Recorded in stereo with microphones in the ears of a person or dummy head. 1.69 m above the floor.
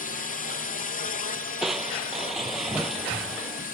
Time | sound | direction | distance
0.0 | a drone | 40° left (ahead or behind) | ?
1.6 | crushing | centre (ahead or behind) | ?